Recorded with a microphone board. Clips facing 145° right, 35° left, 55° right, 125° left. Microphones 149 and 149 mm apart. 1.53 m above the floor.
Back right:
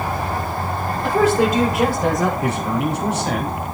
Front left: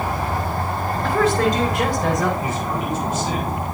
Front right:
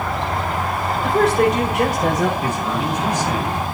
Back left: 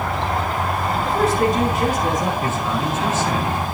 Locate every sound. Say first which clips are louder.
1.0 s a woman speaking: back right 2 dB, front right 3 dB; 70° right, 7.5 m
2.4 s a man speaking: back right 3 dB, even; 130° right, 4.5 m